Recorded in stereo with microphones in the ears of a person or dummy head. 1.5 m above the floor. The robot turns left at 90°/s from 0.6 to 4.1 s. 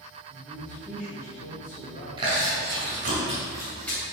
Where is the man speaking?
170° right, 2.5 m; by 2.1 s 60° left, 2.5 m.